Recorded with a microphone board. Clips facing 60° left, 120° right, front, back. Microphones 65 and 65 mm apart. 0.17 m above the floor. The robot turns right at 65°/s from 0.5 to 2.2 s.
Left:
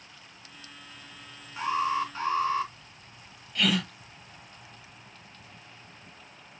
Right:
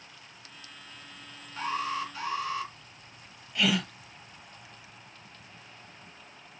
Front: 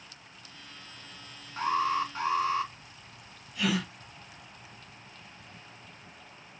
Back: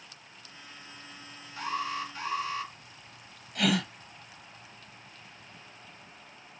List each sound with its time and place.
1.6 s an alarm: 10° right, 2.5 m; by 2.7 s 30° left, 2.5 m
3.5 s a gasp: 155° left, 1.5 m